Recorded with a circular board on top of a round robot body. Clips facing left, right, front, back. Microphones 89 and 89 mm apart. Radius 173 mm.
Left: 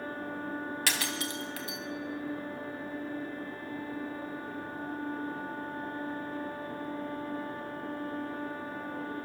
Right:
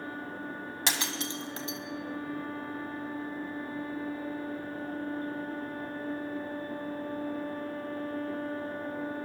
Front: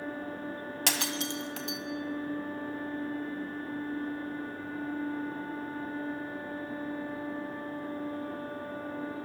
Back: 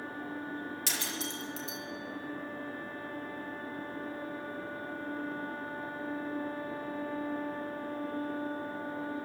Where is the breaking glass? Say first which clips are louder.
Right 4 dB, front 5 dB; 25° right, 2 m.